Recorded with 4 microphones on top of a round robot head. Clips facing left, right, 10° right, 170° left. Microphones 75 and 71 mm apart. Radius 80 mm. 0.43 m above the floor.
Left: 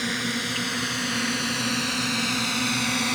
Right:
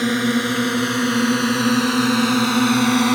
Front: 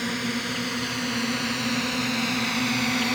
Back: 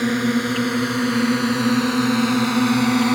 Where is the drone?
130° right.